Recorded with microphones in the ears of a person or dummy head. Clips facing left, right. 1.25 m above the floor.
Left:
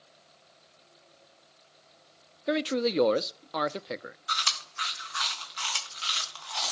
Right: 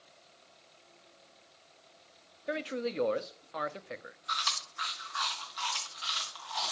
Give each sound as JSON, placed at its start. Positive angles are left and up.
{"t": 2.5, "sound": "a man speaking", "side_deg": 55, "distance_m": 0.5}
{"t": 4.3, "sound": "chewing", "side_deg": 40, "distance_m": 1.7}